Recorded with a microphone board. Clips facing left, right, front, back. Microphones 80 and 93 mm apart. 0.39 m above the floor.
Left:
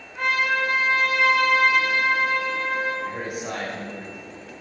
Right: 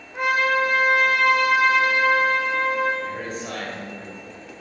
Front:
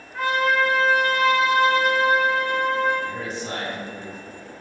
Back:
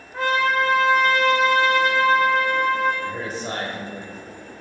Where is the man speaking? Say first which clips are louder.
Even, back 1 dB; 160° left, 1.7 m.